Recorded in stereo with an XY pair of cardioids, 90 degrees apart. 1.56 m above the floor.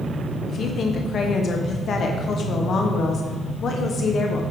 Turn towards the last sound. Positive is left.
turn(degrees=60)